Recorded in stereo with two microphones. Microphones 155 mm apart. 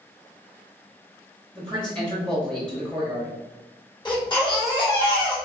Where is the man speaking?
5° left (ahead or behind), 1.1 m.